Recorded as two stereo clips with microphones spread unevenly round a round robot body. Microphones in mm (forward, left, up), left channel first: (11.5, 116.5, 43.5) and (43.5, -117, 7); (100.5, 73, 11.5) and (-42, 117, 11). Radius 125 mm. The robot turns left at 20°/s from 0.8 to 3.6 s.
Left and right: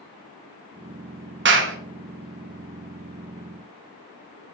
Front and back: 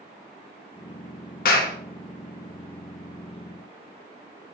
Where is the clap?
50° right, 1.4 m; by 1.8 s 55° right, 1.4 m.